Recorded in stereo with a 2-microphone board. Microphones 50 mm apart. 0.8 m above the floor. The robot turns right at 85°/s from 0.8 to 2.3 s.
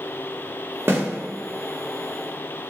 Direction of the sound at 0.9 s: 50° right (ahead or behind).